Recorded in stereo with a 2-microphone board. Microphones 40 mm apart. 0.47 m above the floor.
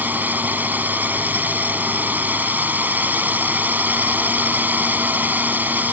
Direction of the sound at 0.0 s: 50° right (ahead or behind).